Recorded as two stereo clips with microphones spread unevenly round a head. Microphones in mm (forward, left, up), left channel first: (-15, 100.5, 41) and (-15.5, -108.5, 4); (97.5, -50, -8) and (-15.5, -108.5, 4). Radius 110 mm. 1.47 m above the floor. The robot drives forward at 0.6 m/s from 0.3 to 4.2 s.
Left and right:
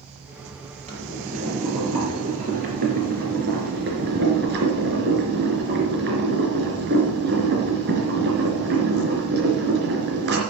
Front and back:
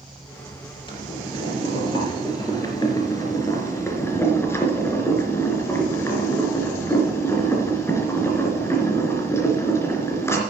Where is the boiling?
25° right, 5 m; by 10.4 s 45° right, 3 m.